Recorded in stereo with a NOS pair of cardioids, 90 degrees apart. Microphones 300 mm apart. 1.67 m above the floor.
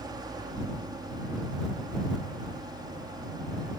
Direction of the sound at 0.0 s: 15° right.